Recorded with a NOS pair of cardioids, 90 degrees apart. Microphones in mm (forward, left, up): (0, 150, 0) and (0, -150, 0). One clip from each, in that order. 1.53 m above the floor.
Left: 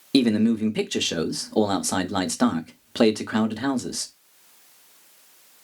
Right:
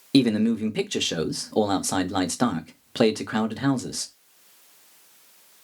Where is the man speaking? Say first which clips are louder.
Even; straight ahead, 0.5 m.